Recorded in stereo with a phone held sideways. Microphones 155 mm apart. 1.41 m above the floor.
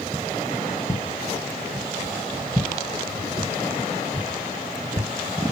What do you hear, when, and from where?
0.9 s footsteps: 15° left (ahead or behind), 1.4 m; by 5.1 s 40° right (ahead or behind), 3 m